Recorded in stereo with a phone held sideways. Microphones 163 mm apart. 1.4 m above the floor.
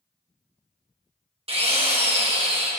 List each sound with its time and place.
1.5 s a drill: 40° right (ahead or behind), 1.4 m